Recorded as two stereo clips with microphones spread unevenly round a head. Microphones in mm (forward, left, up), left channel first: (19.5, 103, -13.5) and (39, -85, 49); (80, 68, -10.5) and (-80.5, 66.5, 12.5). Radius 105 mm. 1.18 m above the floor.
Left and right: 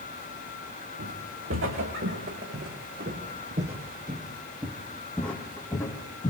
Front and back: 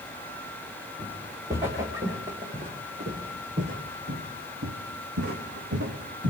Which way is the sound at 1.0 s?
100° right.